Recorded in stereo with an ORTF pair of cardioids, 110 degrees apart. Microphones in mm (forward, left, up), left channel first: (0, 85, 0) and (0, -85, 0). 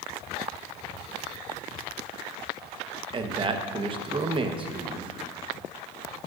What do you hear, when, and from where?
3.1 s a man speaking: 30° right, 1.2 m